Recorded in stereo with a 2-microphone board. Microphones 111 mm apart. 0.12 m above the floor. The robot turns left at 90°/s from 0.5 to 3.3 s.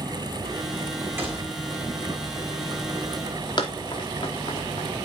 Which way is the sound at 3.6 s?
40° left (ahead or behind).